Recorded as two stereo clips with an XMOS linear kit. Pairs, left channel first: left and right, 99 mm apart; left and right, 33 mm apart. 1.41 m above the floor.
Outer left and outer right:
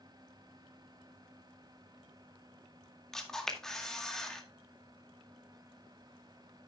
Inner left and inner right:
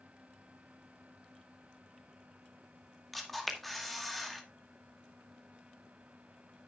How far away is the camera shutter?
About 2 m.